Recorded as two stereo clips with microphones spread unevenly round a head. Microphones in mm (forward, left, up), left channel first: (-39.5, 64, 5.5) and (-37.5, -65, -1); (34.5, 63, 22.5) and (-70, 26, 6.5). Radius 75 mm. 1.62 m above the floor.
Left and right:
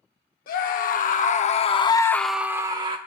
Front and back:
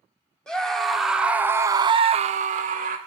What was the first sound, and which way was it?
A scream, 105° left.